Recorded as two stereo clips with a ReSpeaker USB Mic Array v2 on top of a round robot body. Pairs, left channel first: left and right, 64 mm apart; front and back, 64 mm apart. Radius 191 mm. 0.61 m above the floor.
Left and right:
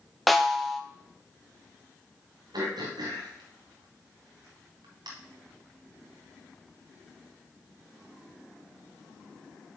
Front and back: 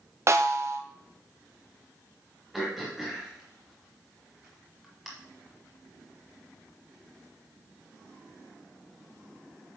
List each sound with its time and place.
0.3 s a snare drum: straight behind, 1.0 m
2.5 s throat clearing: 90° right, 1.2 m